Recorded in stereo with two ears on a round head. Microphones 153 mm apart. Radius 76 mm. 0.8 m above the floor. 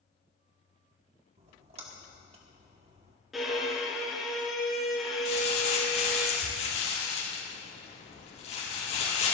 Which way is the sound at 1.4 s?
35° right (ahead or behind).